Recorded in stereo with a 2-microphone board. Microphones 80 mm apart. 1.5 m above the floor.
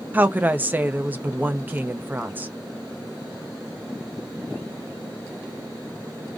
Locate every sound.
0.1 s a woman speaking: 20° right (ahead or behind), 0.5 m